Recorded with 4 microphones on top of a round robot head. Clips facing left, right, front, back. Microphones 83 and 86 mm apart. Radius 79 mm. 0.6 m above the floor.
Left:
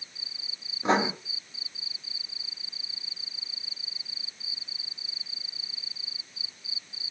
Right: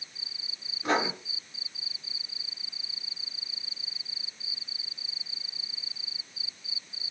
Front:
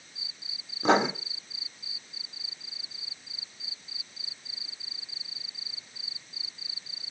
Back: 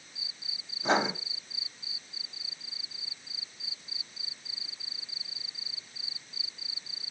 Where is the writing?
15° left, 1.1 m.